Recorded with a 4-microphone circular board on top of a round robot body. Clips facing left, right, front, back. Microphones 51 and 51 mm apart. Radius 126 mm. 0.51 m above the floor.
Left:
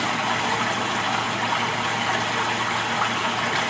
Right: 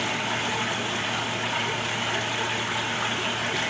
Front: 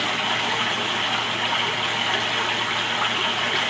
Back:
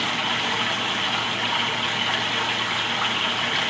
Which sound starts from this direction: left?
Running water, at 0.0 s.